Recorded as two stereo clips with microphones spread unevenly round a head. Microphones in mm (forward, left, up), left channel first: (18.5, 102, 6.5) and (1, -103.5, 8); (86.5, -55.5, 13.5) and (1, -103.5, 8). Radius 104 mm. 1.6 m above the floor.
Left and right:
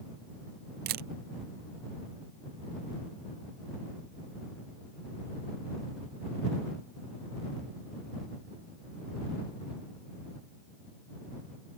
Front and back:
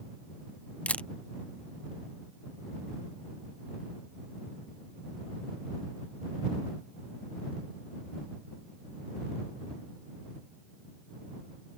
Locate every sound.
0.9 s a camera shutter: 50° right